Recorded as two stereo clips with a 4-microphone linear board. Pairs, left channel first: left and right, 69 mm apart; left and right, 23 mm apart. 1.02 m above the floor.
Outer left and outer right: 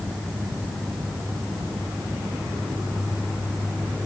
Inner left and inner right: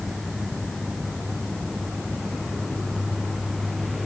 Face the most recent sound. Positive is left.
No sound to turn to.